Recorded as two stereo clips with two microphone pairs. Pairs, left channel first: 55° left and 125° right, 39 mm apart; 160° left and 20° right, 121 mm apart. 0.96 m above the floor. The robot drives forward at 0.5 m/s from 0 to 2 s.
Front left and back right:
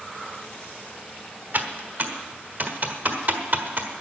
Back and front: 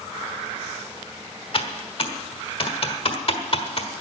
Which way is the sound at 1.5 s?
160° right.